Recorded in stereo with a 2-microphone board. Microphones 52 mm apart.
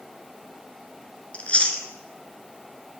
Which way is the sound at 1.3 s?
25° left (ahead or behind).